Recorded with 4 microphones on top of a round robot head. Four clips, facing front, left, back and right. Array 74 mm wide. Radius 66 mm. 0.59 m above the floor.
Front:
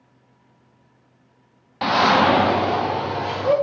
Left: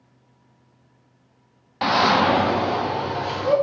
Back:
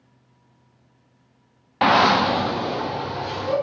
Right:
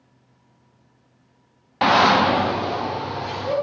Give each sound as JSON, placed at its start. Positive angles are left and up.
{"t": 1.8, "sound": "a shout", "azimuth_deg": -145, "distance_m": 0.7}